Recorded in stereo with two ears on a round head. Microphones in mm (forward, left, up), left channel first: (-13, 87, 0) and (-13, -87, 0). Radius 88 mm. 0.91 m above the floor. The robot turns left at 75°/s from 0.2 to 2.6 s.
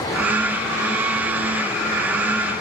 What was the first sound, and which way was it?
Only background noise.